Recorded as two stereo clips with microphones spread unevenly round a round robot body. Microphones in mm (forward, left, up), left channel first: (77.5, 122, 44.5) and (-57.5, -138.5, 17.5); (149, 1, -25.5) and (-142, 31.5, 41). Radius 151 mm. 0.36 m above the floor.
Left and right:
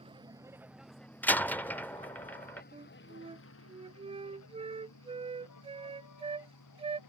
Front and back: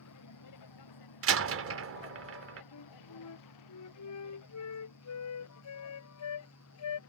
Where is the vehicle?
45° right; by 7.1 s 35° left.